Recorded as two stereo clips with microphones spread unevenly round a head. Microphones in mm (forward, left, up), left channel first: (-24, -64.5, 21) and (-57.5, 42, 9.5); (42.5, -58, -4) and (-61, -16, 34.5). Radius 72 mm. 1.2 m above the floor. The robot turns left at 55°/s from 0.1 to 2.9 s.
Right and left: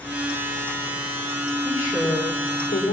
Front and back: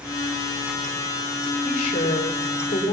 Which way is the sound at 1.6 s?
5° left.